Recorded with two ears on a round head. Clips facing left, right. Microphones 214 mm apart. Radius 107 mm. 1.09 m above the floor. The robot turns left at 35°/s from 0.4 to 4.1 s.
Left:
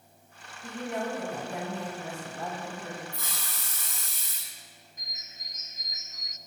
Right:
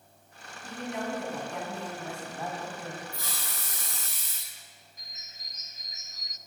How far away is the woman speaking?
About 6 m.